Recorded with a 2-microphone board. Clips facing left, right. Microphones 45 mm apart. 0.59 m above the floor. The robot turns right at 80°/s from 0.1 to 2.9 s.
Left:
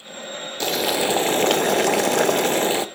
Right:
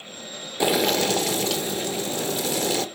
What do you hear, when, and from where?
0.6 s boiling: 15° right, 0.7 m; by 2.9 s 165° left, 0.7 m